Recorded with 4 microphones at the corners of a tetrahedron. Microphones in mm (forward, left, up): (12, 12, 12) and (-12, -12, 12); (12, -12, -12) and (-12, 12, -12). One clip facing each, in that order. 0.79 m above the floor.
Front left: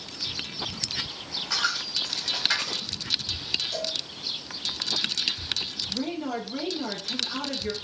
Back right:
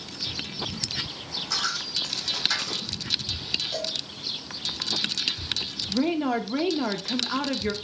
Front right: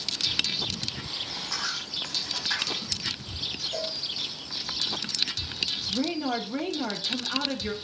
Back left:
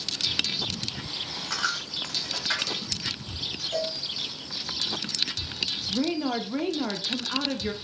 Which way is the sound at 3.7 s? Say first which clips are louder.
Even, back left 3 dB; 160° left.